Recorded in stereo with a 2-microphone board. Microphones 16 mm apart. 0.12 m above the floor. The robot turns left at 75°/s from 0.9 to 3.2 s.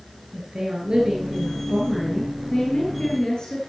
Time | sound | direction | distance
0.3 | a woman speaking | 100° right | 1.8 m